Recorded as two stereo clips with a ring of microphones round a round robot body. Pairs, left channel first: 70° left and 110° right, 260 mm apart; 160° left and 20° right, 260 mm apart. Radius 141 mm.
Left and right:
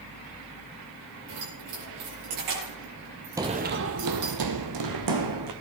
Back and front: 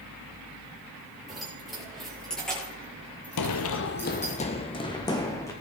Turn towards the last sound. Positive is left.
turn(degrees=-125)